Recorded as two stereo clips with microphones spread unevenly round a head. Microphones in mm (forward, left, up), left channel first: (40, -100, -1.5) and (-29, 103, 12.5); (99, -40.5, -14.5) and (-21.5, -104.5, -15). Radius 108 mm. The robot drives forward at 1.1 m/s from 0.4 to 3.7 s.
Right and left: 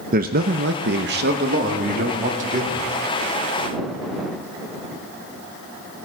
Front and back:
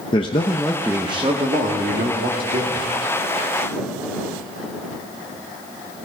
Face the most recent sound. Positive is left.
turn(degrees=170)